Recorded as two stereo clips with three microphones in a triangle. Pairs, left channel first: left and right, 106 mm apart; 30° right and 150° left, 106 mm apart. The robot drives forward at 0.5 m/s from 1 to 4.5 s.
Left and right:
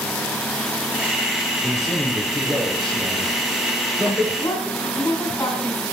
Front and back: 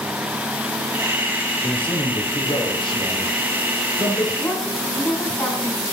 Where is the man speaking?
5° left, 3 m; by 4.3 s 10° left, 1.9 m.